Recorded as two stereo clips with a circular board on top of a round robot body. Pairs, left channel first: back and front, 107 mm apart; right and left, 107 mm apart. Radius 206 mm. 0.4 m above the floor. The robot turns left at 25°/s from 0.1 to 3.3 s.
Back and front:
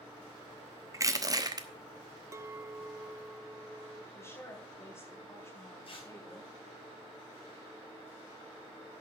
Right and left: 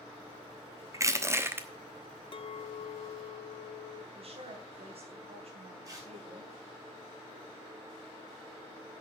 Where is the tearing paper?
150° left, 4.5 m.